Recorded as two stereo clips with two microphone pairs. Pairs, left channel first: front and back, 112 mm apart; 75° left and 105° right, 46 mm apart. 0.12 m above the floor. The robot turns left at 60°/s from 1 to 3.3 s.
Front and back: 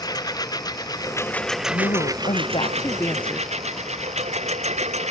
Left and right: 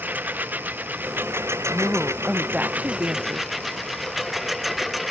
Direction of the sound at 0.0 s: 50° right.